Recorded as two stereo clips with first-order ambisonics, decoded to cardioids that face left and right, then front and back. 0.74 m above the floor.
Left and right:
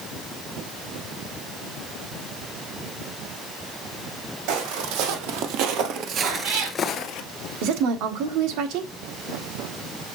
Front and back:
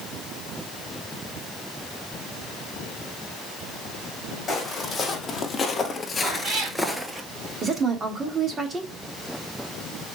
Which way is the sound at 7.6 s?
110° right.